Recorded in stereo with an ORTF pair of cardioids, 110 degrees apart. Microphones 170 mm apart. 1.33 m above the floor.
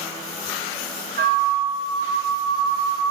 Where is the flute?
60° right, 0.7 m.